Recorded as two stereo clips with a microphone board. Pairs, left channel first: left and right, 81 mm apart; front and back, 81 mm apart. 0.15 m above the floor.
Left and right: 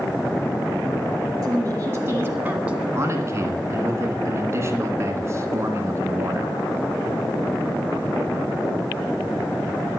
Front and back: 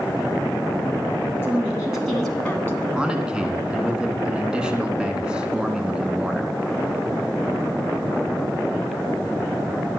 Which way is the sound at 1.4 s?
115° right.